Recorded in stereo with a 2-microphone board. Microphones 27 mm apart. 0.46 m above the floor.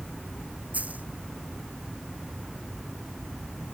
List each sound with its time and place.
0.7 s a dropped coin: 65° right (ahead or behind)